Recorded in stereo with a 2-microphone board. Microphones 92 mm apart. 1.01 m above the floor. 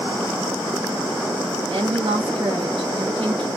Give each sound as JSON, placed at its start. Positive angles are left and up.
{"t": 1.7, "sound": "a woman speaking", "side_deg": -75, "distance_m": 1.4}